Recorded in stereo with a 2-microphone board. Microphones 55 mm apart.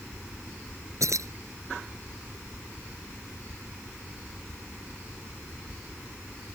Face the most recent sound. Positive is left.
turn(degrees=-70)  # may be behind; listen again after turning